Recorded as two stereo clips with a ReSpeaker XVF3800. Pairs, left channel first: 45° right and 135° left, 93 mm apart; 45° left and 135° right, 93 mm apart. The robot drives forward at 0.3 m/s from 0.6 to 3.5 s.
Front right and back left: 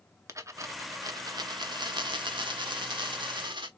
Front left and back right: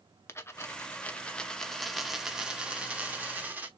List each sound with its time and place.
0.3 s a dropped coin: 95° left, 0.6 m; by 3.7 s 155° left, 1.1 m